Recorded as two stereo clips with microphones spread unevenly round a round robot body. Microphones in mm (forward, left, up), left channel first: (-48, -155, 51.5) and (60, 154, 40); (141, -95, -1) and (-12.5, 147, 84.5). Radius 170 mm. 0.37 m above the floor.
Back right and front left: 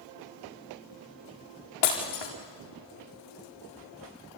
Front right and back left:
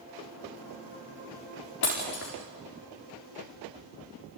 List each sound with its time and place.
1.8 s breaking glass: 115° right, 4.5 m